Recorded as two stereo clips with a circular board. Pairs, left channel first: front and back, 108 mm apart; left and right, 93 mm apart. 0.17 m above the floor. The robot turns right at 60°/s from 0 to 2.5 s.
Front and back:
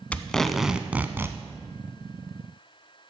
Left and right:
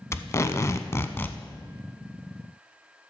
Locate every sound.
0.1 s tape being pulled: 65° left, 0.6 m; by 1.4 s 145° left, 0.6 m